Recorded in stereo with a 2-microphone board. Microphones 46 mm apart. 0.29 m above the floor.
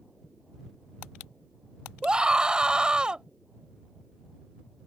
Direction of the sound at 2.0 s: 20° right (ahead or behind).